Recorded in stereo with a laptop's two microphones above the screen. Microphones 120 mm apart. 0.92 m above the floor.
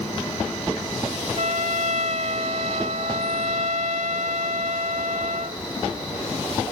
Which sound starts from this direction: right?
A trumpet, at 1.4 s.